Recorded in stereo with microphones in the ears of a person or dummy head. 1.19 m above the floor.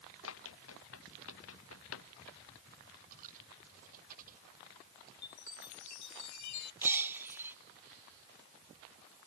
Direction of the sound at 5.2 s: 70° left (ahead or behind).